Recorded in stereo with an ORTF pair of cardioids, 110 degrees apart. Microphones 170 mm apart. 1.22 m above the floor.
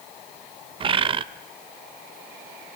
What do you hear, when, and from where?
0.8 s a bird: 30° right, 0.8 m